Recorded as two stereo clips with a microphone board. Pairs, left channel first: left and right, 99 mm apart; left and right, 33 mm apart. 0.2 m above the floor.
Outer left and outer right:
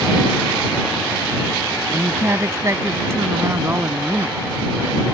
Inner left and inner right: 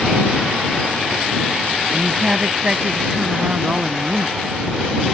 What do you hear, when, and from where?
1.9 s a woman speaking: 30° right (ahead or behind); by 4.4 s 25° right (ahead or behind)